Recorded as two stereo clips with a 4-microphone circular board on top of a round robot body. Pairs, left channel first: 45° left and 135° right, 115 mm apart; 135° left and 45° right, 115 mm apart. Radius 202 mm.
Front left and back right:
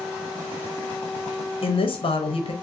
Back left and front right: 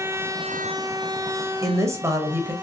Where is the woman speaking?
15° left, 1.0 m.